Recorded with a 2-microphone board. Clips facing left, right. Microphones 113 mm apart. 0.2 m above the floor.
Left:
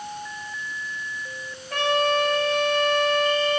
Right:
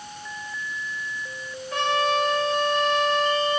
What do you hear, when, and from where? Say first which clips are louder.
1.7 s a trumpet: left 1 dB; 60° left (ahead or behind), 4 m